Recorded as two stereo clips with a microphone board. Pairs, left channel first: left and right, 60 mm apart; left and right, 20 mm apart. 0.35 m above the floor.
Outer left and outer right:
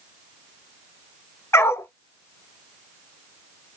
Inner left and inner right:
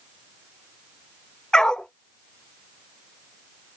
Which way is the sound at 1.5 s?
50° left (ahead or behind).